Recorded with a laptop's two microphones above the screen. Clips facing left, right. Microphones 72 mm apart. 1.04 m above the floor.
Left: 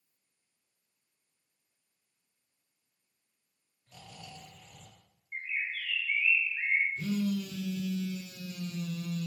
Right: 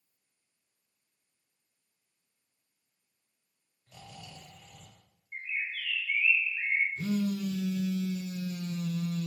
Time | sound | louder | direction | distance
3.9 | snoring | even | 5° right (ahead or behind) | 1.9 m
5.3 | a bird | even | 25° left (ahead or behind) | 0.7 m
7.0 | a phone buzzing | right 1 dB | 30° right (ahead or behind) | 0.6 m